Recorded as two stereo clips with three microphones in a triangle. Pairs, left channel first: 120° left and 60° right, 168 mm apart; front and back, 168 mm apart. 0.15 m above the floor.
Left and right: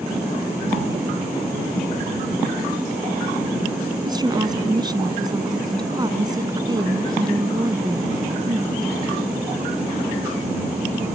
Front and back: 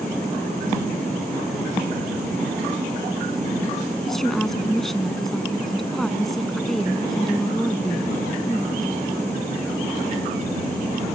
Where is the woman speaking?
85° right.